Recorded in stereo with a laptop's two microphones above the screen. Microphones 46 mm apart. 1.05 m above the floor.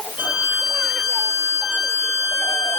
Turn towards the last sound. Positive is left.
turn(degrees=-45)  # may be behind; listen again after turning